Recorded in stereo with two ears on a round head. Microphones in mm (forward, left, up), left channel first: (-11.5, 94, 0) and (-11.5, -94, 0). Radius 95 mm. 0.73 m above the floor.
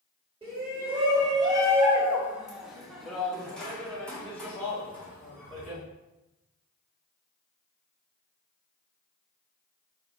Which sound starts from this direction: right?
A shout, at 0.4 s.